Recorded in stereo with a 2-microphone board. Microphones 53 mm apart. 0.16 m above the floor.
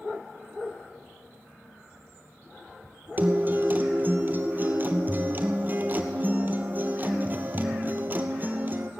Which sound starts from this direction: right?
A guitar, at 3.2 s.